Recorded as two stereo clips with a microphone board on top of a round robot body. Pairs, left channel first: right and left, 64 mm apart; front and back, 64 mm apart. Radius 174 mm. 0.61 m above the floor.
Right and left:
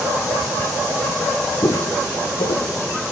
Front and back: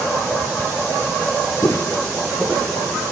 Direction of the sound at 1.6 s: 55° right.